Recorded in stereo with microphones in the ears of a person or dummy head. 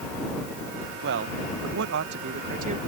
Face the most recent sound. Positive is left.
turn(degrees=-45)  # may be behind; listen again after turning